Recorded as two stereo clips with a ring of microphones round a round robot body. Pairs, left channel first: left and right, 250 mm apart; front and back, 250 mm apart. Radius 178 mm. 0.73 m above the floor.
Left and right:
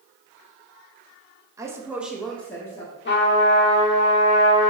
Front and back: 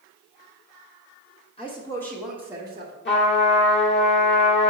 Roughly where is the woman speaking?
Ahead right.